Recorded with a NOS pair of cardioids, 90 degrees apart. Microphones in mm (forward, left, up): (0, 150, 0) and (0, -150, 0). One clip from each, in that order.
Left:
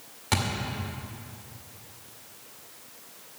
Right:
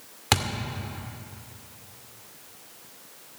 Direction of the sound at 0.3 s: 60° right.